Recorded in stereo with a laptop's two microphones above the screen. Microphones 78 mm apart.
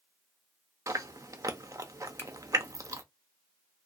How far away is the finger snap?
About 0.7 m.